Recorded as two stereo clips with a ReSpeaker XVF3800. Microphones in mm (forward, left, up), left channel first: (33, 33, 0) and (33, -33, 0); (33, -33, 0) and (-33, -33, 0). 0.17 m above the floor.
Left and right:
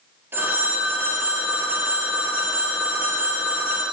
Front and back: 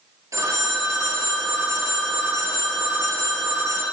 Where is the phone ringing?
145° right, 2.5 m.